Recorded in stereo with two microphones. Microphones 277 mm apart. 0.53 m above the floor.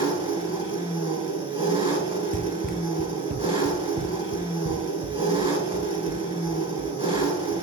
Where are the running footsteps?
30° right (ahead or behind), 0.5 m; by 7.5 s 35° right (ahead or behind), 3 m.